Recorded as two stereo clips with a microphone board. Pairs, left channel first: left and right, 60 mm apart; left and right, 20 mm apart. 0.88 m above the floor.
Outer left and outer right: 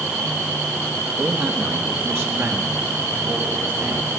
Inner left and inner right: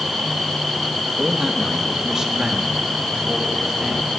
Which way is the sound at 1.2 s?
30° right (ahead or behind).